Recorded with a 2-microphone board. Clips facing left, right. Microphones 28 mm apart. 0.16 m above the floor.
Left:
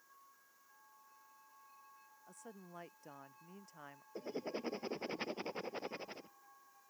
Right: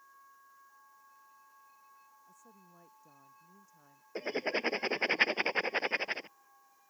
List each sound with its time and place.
2.3 s a woman speaking: 70° left (ahead or behind)
4.2 s writing: 75° right (ahead or behind)